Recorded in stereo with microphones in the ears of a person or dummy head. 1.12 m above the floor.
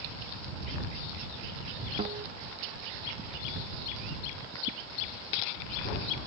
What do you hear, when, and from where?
2.0 s a guitar: 30° right (ahead or behind)